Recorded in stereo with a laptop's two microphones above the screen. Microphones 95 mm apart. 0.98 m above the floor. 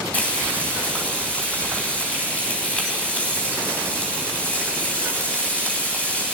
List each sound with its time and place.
0.1 s frying: 15° left (ahead or behind), 3.5 m